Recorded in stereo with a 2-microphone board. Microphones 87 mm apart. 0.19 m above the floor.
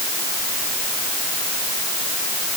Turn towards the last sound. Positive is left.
No sound to turn to.